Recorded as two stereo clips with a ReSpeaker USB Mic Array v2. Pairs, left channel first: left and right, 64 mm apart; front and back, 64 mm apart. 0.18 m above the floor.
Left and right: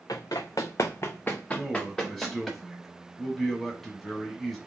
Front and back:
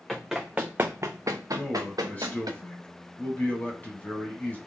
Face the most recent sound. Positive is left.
turn(degrees=5)